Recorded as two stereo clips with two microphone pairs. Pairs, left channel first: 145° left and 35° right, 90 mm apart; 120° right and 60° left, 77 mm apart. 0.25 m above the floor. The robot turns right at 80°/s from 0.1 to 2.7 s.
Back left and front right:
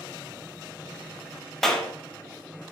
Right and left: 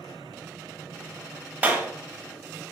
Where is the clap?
60° left, 0.8 m; by 1.9 s 80° left, 0.8 m.